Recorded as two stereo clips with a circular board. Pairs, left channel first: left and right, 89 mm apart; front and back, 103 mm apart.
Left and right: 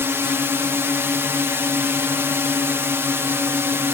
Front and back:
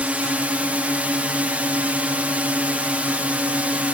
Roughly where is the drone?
Behind right.